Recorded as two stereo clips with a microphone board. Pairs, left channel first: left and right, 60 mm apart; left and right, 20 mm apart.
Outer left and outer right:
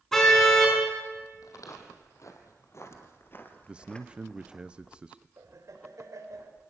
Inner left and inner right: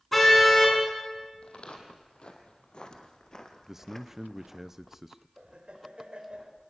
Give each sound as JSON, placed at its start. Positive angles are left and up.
{"t": 0.1, "sound": "a car horn", "side_deg": 5, "distance_m": 5.5}
{"t": 1.4, "sound": "footsteps", "side_deg": 70, "distance_m": 3.5}
{"t": 3.7, "sound": "a man speaking", "side_deg": -20, "distance_m": 0.6}
{"t": 5.4, "sound": "laughter", "side_deg": -70, "distance_m": 4.5}